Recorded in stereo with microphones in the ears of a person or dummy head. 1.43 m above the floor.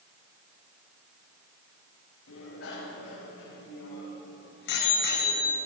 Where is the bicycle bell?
70° left (ahead or behind), 5.5 m; by 5.6 s 50° left (ahead or behind), 5 m.